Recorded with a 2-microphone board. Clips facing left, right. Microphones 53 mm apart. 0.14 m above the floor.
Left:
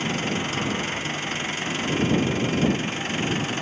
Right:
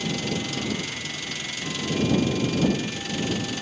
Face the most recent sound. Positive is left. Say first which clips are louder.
# left 2 dB
turn(degrees=35)  # may be behind; listen again after turning